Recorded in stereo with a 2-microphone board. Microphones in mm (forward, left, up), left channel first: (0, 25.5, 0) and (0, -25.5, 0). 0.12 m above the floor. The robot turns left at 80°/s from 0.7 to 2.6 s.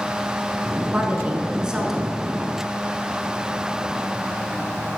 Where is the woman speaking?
25° right (ahead or behind), 1.3 m; by 2.2 s centre (ahead or behind), 1.3 m.